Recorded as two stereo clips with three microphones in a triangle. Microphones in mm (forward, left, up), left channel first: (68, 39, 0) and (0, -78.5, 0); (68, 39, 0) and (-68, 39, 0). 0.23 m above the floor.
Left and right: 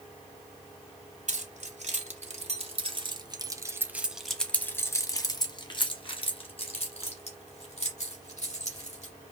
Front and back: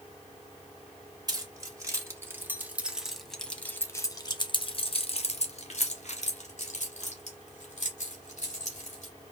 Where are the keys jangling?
120° right, 1.6 m; by 9.1 s 30° left, 3 m.